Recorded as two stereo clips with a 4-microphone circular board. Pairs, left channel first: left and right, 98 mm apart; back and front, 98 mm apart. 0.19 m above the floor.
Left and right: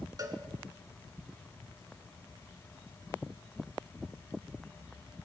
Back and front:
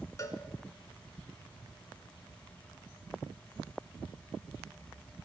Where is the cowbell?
135° right, 1.5 m.